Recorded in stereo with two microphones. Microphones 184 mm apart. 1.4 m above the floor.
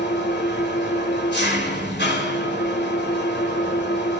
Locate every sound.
0.0 s an engine running: 70° left (ahead or behind), 3 m